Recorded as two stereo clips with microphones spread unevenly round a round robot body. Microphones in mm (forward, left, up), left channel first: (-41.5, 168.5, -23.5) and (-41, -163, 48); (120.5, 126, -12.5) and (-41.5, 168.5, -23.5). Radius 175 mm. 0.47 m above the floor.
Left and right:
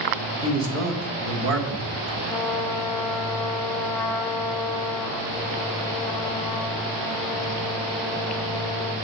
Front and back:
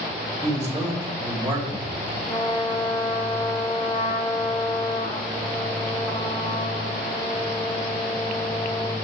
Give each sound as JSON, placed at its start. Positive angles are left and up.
{"t": 0.4, "sound": "a man speaking", "azimuth_deg": -115, "distance_m": 1.5}
{"t": 2.3, "sound": "a trumpet", "azimuth_deg": 30, "distance_m": 0.9}